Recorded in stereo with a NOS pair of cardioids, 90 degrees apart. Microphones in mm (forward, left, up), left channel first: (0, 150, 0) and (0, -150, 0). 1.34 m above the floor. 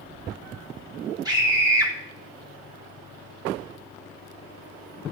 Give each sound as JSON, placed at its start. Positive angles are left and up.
{"t": 1.2, "sound": "a scream", "azimuth_deg": -15, "distance_m": 4.5}